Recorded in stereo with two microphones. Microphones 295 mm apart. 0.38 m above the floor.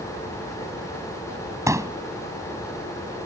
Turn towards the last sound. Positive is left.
turn(degrees=-10)  # may be behind; listen again after turning